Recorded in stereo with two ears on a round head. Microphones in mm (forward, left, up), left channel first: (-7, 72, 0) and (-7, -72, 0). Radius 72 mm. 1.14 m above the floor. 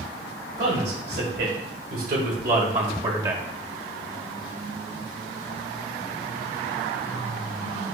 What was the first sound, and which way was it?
A man speaking, 70° right (ahead or behind).